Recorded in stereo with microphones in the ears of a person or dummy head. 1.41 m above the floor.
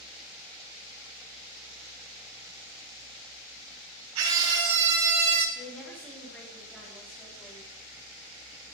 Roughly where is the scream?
Right.